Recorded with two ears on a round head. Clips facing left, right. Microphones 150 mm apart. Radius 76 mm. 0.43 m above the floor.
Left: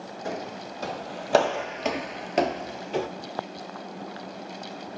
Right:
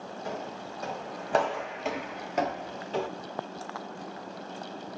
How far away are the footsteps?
About 1.2 m.